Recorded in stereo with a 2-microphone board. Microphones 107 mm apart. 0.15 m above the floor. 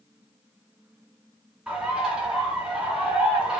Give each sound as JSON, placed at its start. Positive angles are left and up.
{"t": 1.7, "sound": "a bird", "side_deg": -5, "distance_m": 1.4}